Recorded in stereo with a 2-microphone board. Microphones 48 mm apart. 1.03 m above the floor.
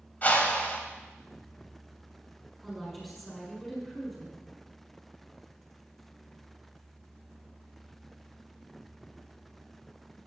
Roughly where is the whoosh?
Left.